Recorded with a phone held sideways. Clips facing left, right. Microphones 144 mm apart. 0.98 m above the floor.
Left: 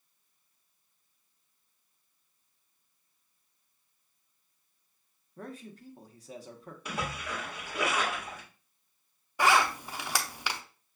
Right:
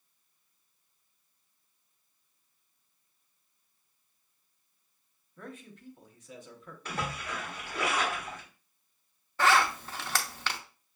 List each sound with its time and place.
5.4 s a man speaking: 35° left (ahead or behind), 0.7 m
6.8 s a splash: 15° left (ahead or behind), 1.5 m
9.4 s a zipper: 10° left (ahead or behind), 0.5 m